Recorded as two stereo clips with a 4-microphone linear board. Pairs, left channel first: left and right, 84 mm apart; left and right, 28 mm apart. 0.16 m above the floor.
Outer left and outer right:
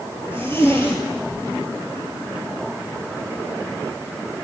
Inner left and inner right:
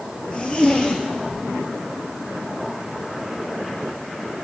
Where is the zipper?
30° left (ahead or behind), 1.0 m.